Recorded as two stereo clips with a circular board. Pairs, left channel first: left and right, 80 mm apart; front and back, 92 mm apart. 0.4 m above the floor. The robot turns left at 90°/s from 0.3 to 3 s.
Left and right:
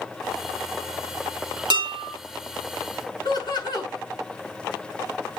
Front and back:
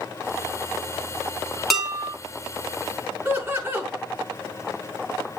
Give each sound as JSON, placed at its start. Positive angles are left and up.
{"t": 1.7, "sound": "dishes clattering", "azimuth_deg": -90, "distance_m": 3.0}
{"t": 3.2, "sound": "laughter", "azimuth_deg": 110, "distance_m": 5.0}